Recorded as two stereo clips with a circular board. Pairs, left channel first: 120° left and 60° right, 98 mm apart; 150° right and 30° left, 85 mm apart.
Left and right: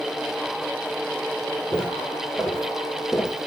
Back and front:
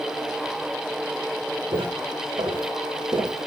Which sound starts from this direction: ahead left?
Footsteps, at 1.7 s.